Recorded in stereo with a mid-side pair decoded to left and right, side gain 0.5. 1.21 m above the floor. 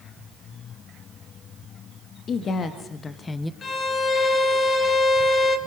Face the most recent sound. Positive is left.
turn(degrees=40)